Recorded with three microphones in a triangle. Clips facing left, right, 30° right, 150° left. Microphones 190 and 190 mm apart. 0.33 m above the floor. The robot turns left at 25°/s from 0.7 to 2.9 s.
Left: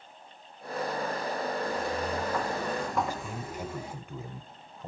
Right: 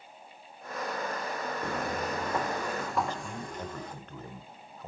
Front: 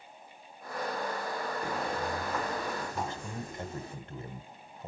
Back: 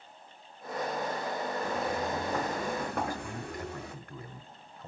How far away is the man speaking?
About 1.0 m.